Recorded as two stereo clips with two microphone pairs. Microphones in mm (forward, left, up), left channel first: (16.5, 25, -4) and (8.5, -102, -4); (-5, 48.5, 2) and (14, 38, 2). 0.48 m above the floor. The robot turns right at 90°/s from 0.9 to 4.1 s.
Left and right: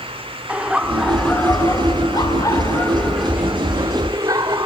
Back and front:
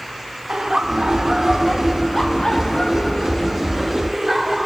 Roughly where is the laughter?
Ahead right.